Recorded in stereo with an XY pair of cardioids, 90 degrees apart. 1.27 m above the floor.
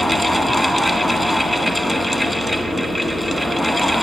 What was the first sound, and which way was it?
A fan, 5° right.